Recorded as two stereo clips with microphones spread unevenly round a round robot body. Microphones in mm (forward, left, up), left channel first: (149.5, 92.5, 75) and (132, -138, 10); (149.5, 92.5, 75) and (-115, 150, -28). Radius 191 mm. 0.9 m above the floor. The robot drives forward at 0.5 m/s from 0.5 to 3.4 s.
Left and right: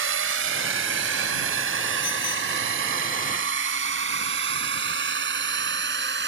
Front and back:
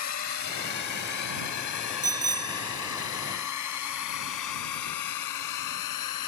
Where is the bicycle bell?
90° left.